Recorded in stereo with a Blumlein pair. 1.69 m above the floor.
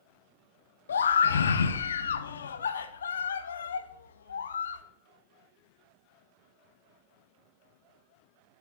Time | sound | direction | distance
0.9 | a scream | 70° left | 0.6 m